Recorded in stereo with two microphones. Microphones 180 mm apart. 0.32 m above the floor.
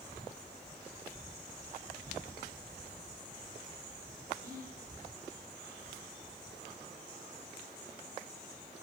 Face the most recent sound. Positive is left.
turn(degrees=-50)  # may be behind; listen again after turning